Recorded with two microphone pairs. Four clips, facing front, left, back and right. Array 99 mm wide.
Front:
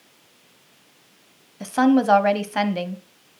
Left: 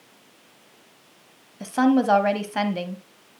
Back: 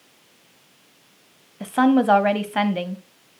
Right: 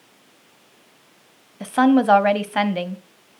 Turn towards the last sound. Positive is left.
turn(degrees=-100)